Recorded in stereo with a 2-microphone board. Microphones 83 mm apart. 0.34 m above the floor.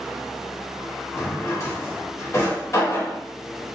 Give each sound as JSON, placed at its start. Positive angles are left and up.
{"t": 1.1, "sound": "a drawer", "side_deg": 35, "distance_m": 0.8}